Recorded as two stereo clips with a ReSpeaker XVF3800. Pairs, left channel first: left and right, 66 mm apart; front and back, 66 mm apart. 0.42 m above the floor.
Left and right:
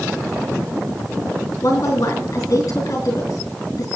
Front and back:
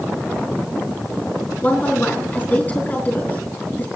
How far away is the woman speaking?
About 4.5 m.